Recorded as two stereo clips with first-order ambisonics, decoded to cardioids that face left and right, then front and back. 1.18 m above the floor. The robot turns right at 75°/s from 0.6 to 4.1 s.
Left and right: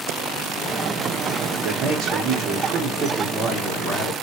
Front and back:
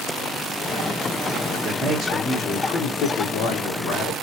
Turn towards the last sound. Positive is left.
turn(degrees=55)